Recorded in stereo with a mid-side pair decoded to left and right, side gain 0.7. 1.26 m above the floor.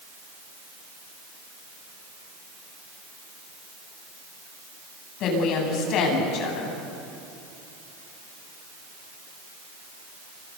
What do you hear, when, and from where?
5.2 s a woman speaking: 55° left, 9 m